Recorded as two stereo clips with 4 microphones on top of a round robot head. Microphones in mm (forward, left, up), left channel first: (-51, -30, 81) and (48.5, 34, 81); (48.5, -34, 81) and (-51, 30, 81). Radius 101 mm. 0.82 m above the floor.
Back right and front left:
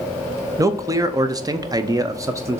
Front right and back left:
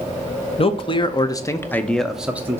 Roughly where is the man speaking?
Ahead right.